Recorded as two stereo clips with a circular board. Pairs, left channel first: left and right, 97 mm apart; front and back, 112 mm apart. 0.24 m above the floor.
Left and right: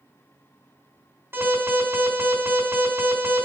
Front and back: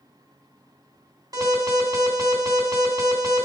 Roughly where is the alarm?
Behind right.